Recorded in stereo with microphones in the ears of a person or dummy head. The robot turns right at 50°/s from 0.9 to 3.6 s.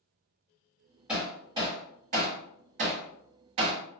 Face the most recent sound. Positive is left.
turn(degrees=-35)  # may be behind; listen again after turning